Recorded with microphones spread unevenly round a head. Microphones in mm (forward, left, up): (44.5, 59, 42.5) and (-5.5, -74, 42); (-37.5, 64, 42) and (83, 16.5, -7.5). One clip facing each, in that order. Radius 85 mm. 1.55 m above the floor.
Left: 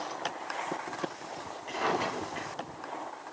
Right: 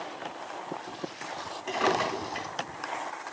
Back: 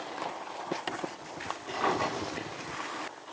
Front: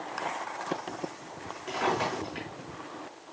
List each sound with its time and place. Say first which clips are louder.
1.7 s a drawer: right 4 dB, front 1 dB; 105° right, 6.5 m